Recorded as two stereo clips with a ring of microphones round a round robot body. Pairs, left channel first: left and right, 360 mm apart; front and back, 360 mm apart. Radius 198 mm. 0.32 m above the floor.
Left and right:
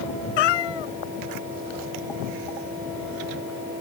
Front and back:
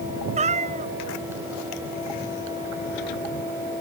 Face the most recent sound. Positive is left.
turn(degrees=105)